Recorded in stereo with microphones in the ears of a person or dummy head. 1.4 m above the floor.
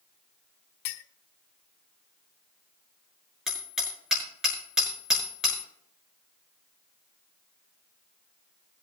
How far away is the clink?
About 1.2 m.